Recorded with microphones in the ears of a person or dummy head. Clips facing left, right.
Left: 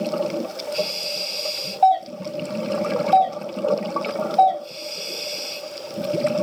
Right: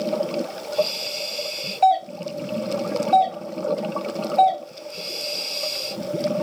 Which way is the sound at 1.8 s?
25° right (ahead or behind).